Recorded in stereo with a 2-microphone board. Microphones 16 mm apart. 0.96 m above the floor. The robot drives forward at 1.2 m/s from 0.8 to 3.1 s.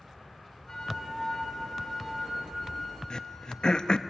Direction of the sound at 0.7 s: 35° left (ahead or behind).